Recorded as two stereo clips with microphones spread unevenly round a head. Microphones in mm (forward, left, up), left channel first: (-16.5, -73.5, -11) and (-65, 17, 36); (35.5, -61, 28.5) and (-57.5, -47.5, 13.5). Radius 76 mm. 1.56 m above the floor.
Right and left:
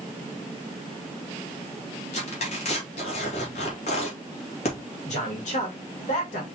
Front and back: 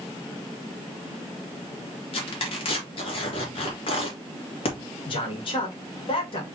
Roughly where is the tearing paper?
Ahead right.